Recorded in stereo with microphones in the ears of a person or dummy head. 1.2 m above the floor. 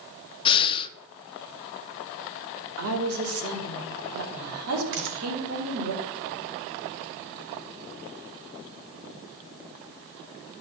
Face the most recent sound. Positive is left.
turn(degrees=-70)  # may be behind; listen again after turning